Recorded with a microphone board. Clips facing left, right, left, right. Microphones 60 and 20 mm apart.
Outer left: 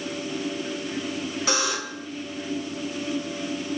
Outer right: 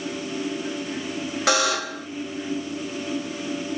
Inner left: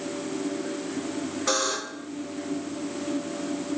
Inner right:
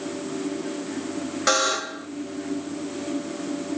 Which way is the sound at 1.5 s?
75° right (ahead or behind).